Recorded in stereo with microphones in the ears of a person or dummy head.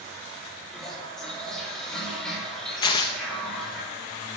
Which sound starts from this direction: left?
Tearing paper, at 2.8 s.